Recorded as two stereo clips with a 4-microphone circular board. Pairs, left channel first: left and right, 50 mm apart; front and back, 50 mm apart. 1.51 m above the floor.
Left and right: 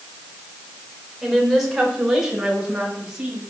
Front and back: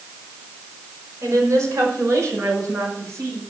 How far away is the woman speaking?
About 5.5 m.